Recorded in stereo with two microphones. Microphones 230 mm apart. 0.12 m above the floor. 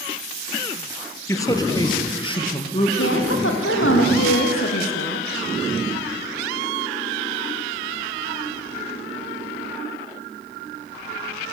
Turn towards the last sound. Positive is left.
turn(degrees=65)  # may be behind; listen again after turning